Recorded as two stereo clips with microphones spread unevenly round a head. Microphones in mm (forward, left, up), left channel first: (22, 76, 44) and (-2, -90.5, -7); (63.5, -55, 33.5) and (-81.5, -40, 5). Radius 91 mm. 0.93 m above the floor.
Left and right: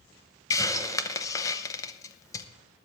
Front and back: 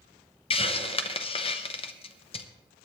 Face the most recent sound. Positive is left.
turn(degrees=-5)